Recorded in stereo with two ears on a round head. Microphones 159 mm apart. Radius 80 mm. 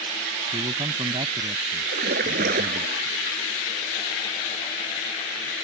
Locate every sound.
0.5 s a man speaking: 25° right (ahead or behind)
1.9 s a splash: 55° right (ahead or behind)